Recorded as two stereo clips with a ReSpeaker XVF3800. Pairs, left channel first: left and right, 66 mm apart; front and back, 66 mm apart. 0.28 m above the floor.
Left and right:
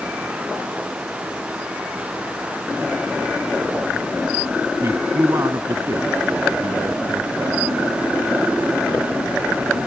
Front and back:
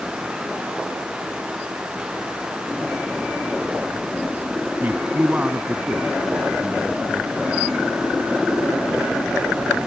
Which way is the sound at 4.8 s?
125° right.